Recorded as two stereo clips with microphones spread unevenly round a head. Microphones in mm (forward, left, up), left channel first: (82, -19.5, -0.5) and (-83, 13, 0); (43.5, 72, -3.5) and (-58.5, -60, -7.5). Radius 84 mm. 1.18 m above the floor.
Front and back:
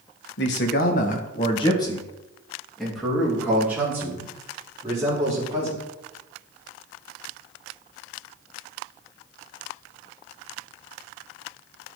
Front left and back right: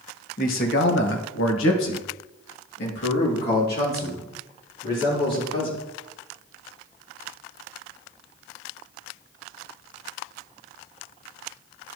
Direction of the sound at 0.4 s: 10° left.